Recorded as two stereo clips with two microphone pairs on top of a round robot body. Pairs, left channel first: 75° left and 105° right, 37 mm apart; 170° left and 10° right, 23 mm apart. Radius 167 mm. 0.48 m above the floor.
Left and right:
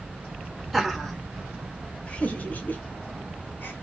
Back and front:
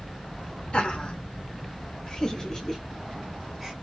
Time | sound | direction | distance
0.7 | laughter | straight behind | 1.4 m